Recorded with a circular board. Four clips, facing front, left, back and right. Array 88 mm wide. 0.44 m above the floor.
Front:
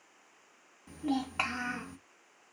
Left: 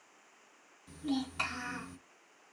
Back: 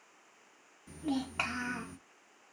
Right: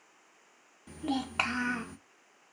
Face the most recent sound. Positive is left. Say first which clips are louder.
# right 2 dB, front 2 dB
turn(degrees=-80)